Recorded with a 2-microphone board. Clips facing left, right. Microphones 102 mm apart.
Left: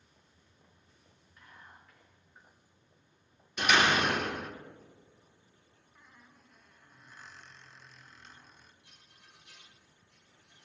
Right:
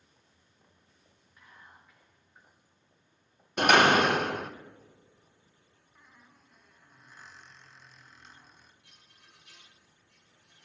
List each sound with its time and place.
1.4 s whispering: 5° right (ahead or behind), 5 m
3.6 s a door slam: 55° right (ahead or behind), 0.6 m
6.0 s a squeak: 5° right (ahead or behind), 1.0 m
8.8 s a rattle: 65° right (ahead or behind), 4.5 m